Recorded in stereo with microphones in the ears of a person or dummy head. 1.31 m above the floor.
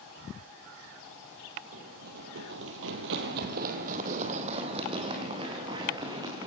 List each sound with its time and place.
1.7 s running footsteps: 45° right (ahead or behind), 2.5 m; by 6.5 s 15° right (ahead or behind), 6.5 m